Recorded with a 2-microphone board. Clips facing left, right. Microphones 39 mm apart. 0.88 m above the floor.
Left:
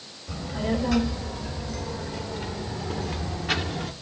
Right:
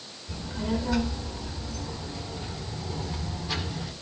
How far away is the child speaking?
About 3.5 m.